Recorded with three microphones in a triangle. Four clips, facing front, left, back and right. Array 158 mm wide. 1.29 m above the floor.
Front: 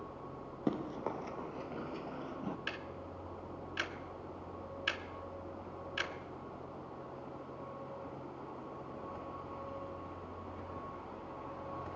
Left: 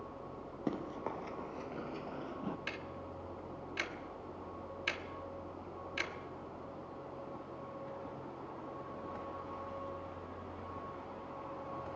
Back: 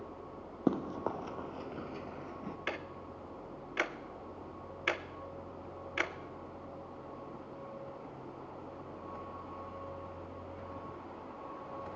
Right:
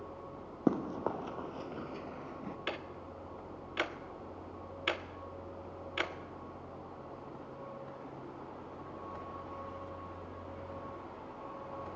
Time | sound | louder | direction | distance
0.7 | running footsteps | right 7 dB, back 4 dB | 120° right | 1.6 m
2.7 | ticking | right 3 dB, back 3 dB | 140° right | 1.1 m